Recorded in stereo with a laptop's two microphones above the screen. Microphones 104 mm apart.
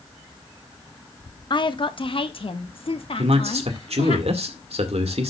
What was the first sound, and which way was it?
A woman speaking, 50° left (ahead or behind).